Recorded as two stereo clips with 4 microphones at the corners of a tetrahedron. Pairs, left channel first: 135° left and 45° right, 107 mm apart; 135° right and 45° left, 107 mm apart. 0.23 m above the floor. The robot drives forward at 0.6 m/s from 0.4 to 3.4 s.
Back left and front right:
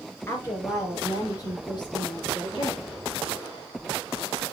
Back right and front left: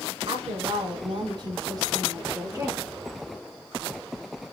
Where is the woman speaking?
70° left, 2.5 m; by 2.8 s 110° left, 2.5 m.